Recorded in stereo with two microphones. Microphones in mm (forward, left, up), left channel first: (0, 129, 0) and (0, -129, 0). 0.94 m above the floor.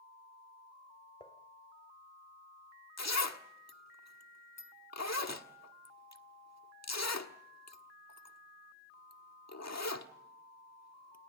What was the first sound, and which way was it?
Dishes clattering, 20° left (ahead or behind).